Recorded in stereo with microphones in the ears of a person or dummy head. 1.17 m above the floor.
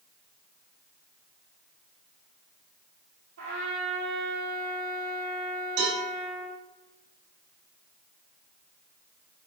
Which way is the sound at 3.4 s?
70° right (ahead or behind).